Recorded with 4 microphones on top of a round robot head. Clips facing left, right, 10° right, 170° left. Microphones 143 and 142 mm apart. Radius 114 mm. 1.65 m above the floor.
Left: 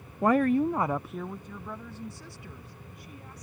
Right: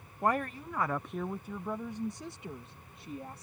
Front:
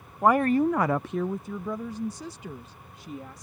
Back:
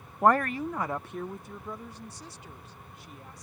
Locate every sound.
0.2 s a woman speaking: 85° left; by 3.5 s 20° right